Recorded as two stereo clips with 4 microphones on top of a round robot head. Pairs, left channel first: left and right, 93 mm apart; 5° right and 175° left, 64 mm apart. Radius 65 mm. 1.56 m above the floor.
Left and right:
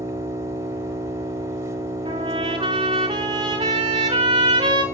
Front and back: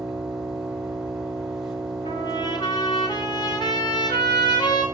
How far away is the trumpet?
About 3 m.